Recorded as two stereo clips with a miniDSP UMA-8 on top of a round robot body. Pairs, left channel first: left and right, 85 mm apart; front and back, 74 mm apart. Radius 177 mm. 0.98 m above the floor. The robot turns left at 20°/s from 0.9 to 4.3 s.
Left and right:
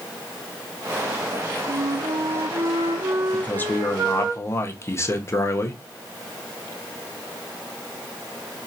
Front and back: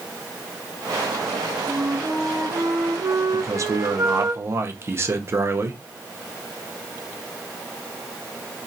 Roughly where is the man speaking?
Behind left.